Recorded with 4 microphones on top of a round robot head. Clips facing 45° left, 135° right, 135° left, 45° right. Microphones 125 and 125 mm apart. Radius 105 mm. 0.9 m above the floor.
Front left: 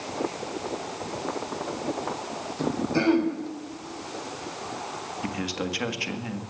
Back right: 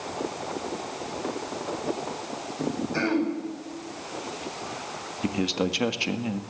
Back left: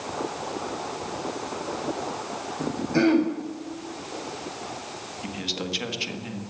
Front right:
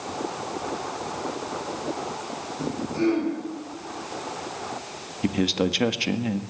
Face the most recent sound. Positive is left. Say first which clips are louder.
# back right 6 dB, front right 11 dB
turn(degrees=-70)